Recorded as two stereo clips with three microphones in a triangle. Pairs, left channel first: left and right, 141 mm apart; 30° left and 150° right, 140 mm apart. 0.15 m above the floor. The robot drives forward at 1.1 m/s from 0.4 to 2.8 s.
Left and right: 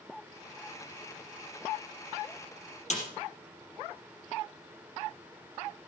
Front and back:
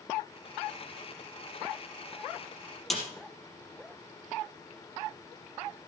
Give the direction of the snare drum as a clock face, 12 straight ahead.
8 o'clock.